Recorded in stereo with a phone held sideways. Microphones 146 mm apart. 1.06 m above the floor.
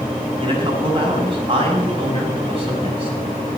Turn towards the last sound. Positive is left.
turn(degrees=-40)  # may be behind; listen again after turning